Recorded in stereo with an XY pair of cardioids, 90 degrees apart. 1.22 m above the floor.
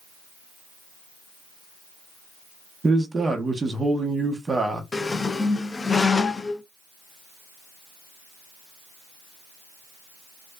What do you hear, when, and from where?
2.8 s a man speaking: 30° right, 0.9 m
4.9 s a squeak: 35° left, 0.5 m